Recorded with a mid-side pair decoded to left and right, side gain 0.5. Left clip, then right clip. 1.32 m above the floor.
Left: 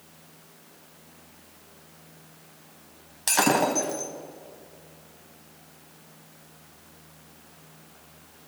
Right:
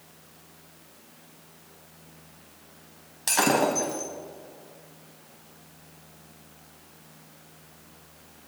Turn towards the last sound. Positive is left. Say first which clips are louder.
# even
turn(degrees=10)